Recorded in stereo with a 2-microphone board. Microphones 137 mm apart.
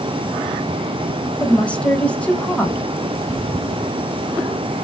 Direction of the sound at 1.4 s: 10° left (ahead or behind).